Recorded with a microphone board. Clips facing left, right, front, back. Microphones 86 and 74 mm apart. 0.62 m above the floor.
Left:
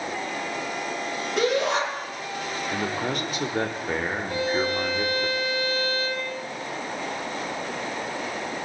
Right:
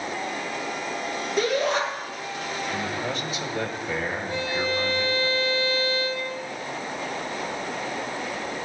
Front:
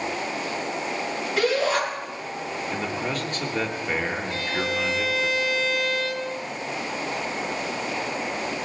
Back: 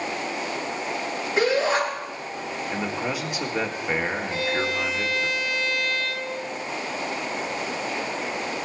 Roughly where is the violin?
Left.